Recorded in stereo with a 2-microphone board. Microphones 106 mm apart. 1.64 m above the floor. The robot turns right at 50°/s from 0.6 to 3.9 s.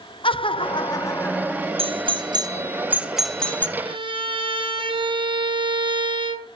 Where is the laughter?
125° left, 0.8 m; by 1.7 s straight behind, 0.8 m.